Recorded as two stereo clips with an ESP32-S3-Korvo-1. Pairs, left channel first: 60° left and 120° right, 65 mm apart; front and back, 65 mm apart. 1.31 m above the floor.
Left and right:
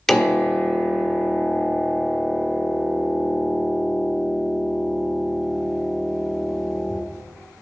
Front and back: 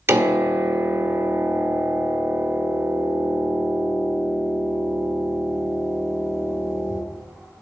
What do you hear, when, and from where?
0.1 s a piano: 140° left, 1.5 m